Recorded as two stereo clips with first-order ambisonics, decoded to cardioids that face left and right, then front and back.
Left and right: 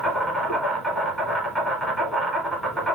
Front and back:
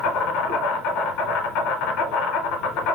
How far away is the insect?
About 1.0 m.